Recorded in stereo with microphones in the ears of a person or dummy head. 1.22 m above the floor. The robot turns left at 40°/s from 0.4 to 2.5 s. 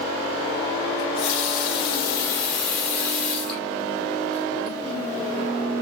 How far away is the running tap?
About 2 m.